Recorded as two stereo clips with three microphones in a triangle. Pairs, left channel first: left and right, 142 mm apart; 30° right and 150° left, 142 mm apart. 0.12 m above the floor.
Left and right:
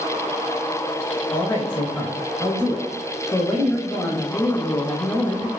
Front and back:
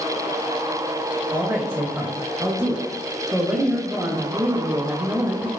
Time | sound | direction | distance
1.3 | a woman speaking | 120° left | 1.2 m